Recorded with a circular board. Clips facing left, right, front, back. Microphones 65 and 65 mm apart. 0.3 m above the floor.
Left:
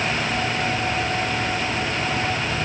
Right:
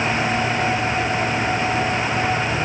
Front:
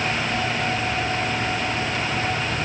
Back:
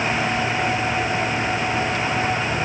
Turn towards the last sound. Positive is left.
No sound to turn to.